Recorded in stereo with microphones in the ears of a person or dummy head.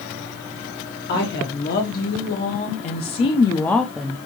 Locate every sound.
1.1 s a woman speaking: 65° left (ahead or behind), 1.7 m; by 4.3 s 15° right (ahead or behind), 0.6 m